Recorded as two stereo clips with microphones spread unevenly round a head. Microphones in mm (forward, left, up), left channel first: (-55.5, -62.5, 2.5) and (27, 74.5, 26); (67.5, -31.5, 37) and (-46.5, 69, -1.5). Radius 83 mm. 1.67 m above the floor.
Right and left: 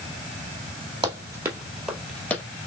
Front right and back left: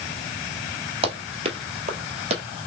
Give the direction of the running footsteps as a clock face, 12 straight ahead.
9 o'clock.